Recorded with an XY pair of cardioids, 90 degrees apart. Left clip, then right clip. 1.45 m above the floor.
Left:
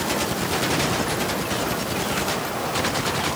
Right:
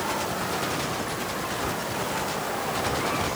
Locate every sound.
Only background noise.